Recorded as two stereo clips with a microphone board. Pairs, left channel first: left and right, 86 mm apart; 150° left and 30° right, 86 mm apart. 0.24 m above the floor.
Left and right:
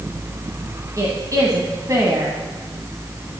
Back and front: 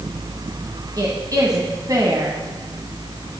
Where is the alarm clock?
I don't hear an alarm clock.